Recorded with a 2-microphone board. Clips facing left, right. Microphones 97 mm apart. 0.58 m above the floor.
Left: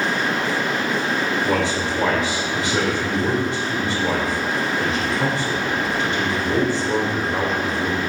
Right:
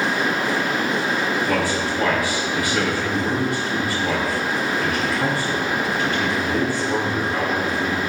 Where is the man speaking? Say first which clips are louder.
Left 1 dB; 25° left (ahead or behind), 2.5 m.